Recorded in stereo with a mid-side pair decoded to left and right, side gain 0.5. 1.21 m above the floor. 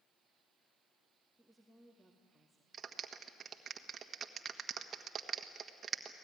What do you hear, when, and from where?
1.4 s a woman speaking: 10° right, 2 m
2.7 s a clap: 45° right, 1.5 m